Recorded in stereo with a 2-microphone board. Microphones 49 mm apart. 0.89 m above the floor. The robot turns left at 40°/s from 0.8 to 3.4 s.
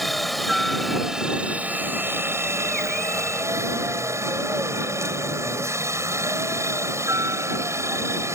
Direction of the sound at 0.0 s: Straight ahead.